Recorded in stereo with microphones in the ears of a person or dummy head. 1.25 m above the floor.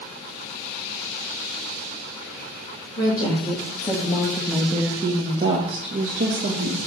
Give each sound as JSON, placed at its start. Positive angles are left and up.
{"t": 3.0, "sound": "a woman speaking", "side_deg": 30, "distance_m": 1.8}